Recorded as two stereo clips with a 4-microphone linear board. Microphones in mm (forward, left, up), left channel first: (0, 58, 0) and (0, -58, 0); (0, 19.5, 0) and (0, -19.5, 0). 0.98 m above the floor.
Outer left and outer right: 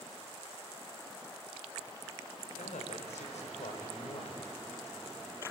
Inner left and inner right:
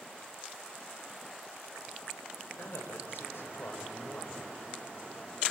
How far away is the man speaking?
About 4 m.